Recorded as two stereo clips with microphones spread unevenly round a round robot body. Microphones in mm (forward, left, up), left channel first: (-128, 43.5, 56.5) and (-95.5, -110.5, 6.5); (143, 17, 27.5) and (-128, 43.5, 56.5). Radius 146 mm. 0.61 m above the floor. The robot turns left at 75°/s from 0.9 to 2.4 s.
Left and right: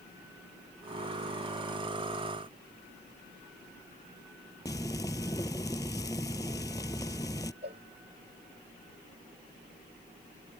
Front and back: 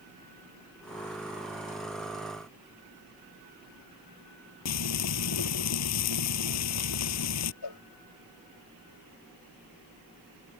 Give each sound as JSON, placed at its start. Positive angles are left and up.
{"t": 4.7, "sound": "frying", "azimuth_deg": 25}
{"t": 7.6, "sound": "a cowbell", "azimuth_deg": -20}